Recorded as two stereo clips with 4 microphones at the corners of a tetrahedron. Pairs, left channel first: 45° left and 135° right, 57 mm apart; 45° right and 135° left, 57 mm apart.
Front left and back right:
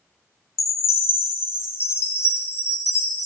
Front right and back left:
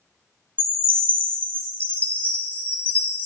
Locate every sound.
0.6 s a chime: 10° left, 0.8 m